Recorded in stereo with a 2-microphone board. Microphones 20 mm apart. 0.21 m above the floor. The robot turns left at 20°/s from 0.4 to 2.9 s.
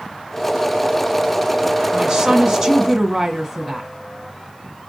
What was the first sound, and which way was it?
A woman speaking, 35° right (ahead or behind).